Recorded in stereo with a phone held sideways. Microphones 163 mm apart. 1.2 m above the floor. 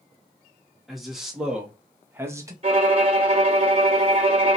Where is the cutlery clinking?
I don't hear cutlery clinking.